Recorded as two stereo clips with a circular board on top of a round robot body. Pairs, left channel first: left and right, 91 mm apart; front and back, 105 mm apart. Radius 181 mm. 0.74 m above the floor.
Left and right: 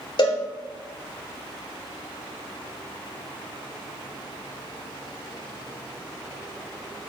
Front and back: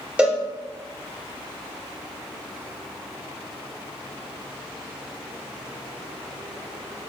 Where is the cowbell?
105° left, 3.5 m.